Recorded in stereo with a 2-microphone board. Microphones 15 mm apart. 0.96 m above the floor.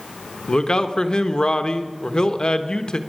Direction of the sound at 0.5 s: 60° left (ahead or behind).